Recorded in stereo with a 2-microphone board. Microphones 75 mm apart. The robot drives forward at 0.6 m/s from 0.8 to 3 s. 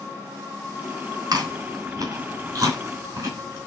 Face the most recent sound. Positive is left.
turn(degrees=-45)  # may be behind; listen again after turning